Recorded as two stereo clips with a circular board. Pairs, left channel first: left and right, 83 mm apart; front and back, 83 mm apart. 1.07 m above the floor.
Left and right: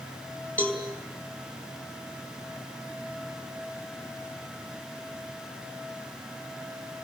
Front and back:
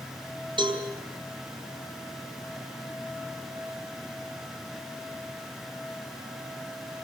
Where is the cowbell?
165° left, 5 m.